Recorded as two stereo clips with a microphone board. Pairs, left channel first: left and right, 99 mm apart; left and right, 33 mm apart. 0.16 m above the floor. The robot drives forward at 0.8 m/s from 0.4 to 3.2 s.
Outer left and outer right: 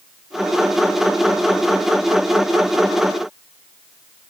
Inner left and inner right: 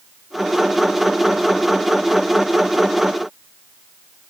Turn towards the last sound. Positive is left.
No sound to turn to.